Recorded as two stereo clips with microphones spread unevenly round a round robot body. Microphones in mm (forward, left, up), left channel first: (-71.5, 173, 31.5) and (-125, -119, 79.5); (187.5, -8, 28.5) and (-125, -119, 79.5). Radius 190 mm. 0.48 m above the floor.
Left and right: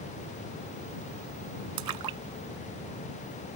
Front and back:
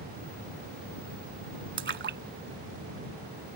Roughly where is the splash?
Right.